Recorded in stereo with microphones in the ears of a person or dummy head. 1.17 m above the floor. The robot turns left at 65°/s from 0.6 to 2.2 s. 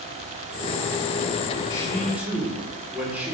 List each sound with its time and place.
1.7 s a man speaking: 30° left, 2.5 m; by 3.3 s 5° right, 2.5 m